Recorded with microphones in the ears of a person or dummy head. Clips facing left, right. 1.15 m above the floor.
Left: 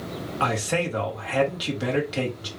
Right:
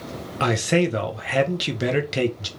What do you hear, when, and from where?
0.4 s a man speaking: 30° right (ahead or behind), 1.0 m